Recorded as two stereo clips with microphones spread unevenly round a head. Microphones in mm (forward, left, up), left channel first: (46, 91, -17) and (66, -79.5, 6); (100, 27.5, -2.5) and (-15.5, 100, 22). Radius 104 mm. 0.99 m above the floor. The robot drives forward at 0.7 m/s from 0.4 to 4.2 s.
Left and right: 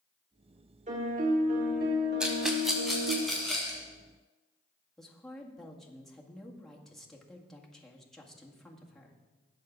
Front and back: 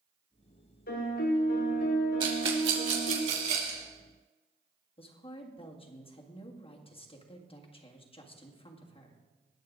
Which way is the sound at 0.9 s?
35° right.